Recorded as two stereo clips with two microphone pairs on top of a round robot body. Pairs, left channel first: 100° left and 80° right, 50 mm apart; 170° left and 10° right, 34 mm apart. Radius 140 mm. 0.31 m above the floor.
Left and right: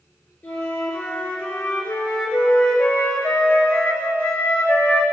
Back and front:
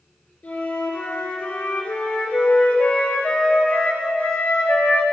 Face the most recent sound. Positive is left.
turn(degrees=145)